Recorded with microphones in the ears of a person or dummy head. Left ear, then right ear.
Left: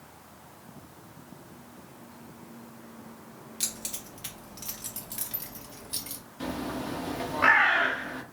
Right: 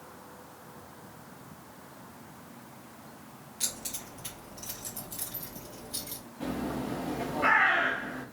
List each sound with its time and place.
3.6 s keys jangling: 25° left (ahead or behind), 1.7 m; by 6.2 s 65° left (ahead or behind), 2.5 m
6.4 s a bird: 40° left (ahead or behind), 0.9 m